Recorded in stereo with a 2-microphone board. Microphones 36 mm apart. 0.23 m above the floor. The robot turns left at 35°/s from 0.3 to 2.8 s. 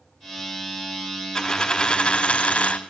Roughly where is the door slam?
I don't hear a door slam.